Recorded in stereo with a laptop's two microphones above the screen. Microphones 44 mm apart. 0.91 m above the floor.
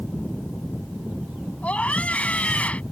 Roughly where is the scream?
Left.